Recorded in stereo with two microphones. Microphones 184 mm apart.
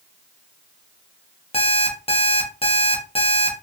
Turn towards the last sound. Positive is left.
turn(degrees=30)  # may be behind; listen again after turning